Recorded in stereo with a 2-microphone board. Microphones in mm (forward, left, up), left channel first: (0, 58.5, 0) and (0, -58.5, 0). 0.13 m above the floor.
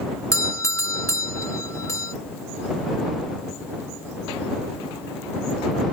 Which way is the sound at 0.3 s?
25° left (ahead or behind).